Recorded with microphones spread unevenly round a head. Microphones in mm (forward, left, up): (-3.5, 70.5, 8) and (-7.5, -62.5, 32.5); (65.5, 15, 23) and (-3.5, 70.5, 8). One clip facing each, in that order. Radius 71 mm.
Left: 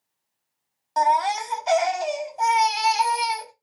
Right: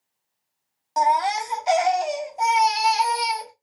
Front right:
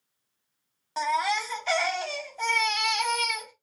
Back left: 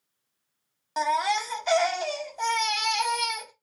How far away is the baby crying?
About 0.7 m.